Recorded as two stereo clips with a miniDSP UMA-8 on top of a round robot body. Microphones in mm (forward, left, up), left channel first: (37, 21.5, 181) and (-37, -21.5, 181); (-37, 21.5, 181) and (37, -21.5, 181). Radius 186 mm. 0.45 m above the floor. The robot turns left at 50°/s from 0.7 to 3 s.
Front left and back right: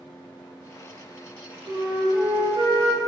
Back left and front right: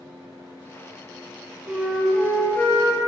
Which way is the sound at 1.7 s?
100° right.